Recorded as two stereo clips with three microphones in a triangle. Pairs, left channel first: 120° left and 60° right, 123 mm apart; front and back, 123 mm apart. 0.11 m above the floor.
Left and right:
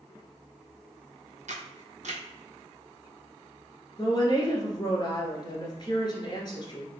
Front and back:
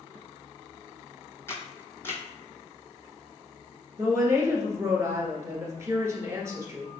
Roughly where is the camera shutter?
Right.